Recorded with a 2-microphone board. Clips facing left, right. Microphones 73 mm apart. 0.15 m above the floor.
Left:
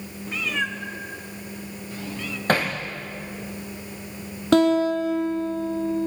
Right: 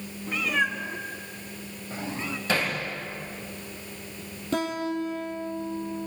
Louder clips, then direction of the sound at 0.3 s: Right 1 dB; 5° right (ahead or behind).